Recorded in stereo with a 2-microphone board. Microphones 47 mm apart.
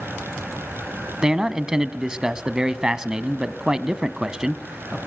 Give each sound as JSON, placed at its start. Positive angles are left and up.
{"t": 1.2, "sound": "a man speaking", "side_deg": -15, "distance_m": 1.0}